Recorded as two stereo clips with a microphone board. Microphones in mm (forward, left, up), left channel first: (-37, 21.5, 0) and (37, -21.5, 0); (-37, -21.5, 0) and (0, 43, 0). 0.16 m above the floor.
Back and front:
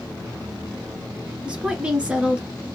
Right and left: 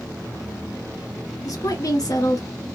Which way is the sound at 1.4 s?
105° right.